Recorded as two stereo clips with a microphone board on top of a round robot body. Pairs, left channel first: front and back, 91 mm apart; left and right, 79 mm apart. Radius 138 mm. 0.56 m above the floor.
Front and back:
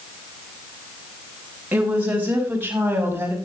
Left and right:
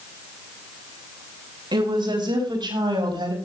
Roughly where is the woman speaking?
Right.